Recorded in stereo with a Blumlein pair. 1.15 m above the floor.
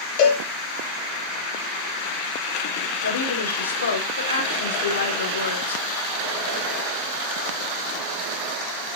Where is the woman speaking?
70° left, 3.5 m.